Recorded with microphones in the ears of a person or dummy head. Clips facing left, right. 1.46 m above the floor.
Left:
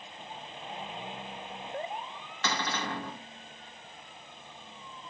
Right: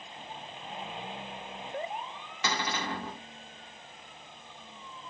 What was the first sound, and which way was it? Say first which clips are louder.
A cupboard door: even; 15° right (ahead or behind).